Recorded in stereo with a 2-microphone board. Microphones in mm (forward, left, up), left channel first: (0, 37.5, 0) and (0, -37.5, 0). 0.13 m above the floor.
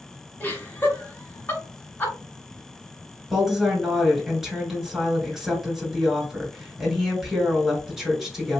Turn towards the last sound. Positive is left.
turn(degrees=-5)  # may be behind; listen again after turning